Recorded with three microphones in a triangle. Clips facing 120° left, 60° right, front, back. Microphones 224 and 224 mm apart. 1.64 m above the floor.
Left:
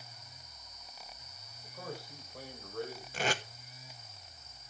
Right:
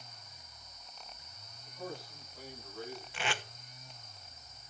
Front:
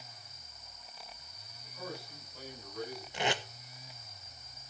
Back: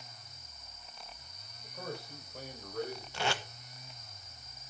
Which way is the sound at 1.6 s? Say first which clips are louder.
Right 1 dB, back 2 dB; 145° left.